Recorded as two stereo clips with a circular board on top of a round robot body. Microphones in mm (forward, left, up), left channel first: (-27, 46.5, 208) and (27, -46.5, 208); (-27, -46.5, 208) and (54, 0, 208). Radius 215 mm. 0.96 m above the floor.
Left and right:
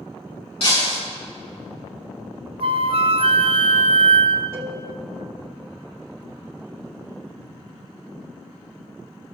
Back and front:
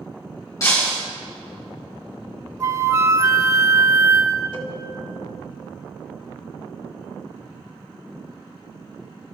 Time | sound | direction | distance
0.6 | breaking glass | 155° left | 5.5 m
2.6 | a flute | 30° right | 1.1 m
4.5 | a cowbell | 125° right | 2.5 m